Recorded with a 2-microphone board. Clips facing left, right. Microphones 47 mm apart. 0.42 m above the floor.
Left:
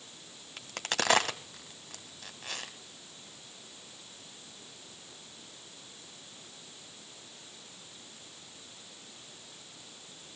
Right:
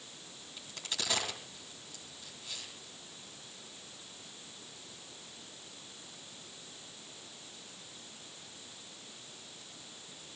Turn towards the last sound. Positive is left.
turn(degrees=70)  # may be behind; listen again after turning